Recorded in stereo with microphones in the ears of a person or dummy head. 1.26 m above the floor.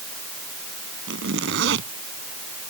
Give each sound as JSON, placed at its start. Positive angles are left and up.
{"t": 1.1, "sound": "a zipper", "side_deg": -75}